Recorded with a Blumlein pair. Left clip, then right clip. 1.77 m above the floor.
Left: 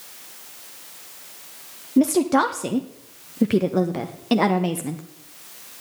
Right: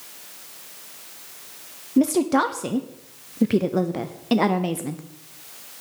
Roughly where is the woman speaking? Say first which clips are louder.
Left 1 dB; ahead.